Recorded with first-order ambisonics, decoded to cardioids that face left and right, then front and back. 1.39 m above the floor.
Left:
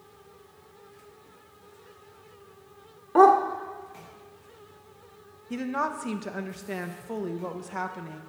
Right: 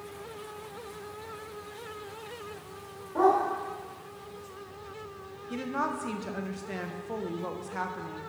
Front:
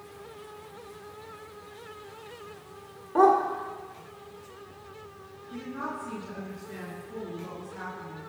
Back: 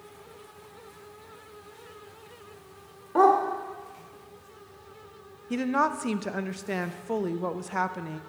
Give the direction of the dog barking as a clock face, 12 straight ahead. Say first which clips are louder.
Left 7 dB, even; 9 o'clock.